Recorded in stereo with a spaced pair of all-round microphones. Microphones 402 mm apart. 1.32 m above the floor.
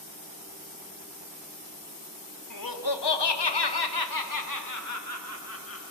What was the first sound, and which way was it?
Laughter, 50° left (ahead or behind).